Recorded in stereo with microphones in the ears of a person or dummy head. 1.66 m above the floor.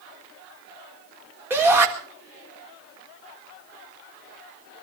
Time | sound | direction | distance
1.5 | a shout | 15° right (ahead or behind) | 4 m